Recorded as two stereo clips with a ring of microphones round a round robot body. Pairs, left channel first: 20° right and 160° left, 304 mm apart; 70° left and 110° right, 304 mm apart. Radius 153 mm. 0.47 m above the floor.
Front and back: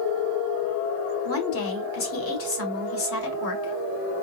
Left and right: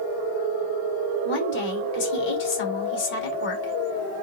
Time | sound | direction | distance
1.2 | a woman speaking | 20° left | 1.9 m